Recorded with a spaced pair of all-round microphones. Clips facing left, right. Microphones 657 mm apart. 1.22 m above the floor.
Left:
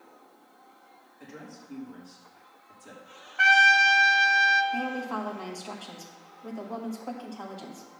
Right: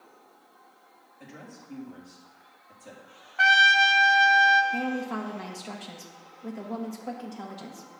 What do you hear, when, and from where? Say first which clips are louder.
1.2 s a woman speaking: left 1 dB; 15° right (ahead or behind), 2.5 m
3.4 s a trumpet: left 1 dB; 15° right (ahead or behind), 0.5 m
4.7 s a woman speaking: even; 45° right (ahead or behind), 1.3 m